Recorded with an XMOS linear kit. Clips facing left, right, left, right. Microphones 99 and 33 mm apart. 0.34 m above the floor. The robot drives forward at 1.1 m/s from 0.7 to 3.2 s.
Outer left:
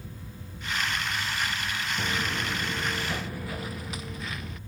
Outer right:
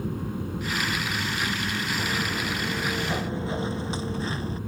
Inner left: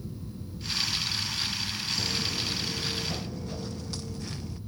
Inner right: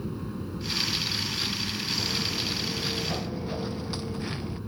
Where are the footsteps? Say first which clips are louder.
Outer right 2 dB, inner right 1 dB; 5° right (ahead or behind); by 4.6 s 30° right (ahead or behind).